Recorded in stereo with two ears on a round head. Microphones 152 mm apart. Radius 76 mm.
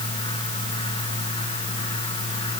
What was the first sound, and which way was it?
Only background noise.